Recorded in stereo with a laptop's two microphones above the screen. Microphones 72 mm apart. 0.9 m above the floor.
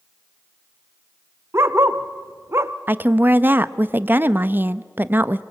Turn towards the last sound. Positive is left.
turn(degrees=-30)  # may be behind; listen again after turning